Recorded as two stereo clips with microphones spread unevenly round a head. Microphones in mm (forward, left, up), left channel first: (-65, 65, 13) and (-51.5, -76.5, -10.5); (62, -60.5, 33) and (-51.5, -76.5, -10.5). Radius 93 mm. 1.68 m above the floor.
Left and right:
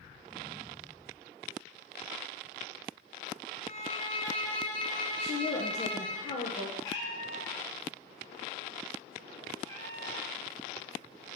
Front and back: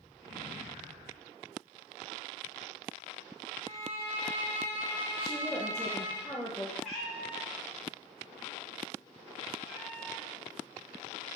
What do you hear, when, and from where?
3.6 s a violin: 115° left, 2.5 m
5.2 s a woman speaking: 85° left, 0.9 m
6.8 s a cat meowing: 65° left, 1.2 m